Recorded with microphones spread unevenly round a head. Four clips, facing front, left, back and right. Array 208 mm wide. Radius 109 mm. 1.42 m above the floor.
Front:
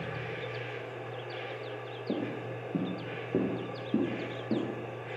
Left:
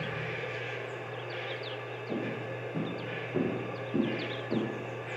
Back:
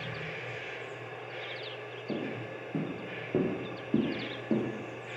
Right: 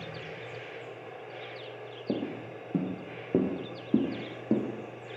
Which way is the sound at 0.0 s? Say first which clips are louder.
Left 5 dB, front 2 dB; 45° left.